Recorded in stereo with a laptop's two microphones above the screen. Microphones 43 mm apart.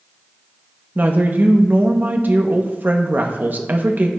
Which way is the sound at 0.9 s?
45° right (ahead or behind).